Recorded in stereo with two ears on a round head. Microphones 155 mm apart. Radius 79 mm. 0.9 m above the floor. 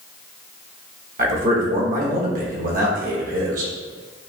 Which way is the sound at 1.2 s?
50° right (ahead or behind).